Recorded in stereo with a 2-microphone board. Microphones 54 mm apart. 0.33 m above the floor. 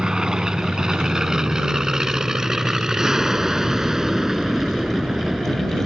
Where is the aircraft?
15° right (ahead or behind); by 5.9 s 5° right (ahead or behind).